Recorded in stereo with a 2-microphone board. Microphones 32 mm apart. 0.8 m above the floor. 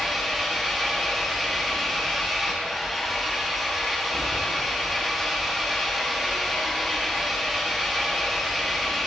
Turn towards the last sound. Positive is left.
turn(degrees=-5)  # may be behind; listen again after turning